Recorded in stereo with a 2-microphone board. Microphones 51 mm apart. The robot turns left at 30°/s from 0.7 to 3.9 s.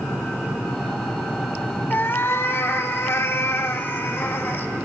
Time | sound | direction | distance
1.9 | a cat meowing | 125° left | 0.7 m